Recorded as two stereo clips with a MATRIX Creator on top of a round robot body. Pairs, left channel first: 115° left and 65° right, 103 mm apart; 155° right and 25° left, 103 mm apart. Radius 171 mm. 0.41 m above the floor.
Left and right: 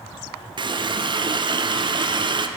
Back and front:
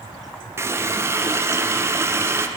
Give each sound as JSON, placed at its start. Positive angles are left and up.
{"t": 0.6, "sound": "a running tap", "azimuth_deg": -40, "distance_m": 0.8}